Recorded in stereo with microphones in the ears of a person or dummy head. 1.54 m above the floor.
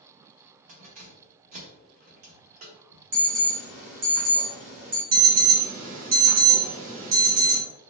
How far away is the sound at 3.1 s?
About 1.0 m.